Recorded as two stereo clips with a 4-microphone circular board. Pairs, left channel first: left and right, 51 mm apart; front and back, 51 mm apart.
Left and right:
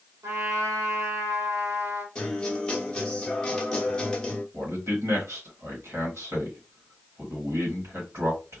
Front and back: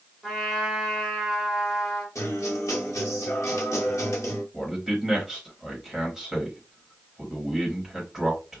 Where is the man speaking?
100° right, 1.7 m.